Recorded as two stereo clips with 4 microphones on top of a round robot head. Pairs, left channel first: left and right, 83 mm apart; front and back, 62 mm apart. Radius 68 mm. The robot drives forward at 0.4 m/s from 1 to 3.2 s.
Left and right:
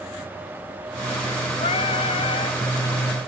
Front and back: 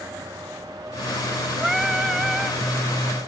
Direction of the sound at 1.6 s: 95° left.